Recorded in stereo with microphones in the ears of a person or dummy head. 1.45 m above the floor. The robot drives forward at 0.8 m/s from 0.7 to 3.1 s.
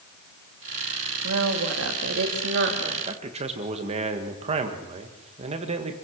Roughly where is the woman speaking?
Right.